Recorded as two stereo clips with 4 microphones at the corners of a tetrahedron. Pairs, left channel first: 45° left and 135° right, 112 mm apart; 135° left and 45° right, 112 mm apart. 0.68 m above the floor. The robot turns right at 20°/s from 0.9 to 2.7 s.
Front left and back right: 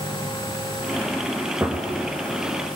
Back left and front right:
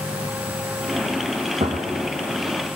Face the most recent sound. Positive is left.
turn(degrees=-45)